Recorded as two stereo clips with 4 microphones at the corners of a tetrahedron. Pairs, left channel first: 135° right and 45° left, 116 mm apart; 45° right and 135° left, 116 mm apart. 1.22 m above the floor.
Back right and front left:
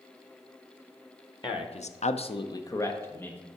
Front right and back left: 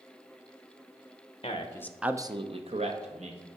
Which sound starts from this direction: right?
A man speaking, at 1.4 s.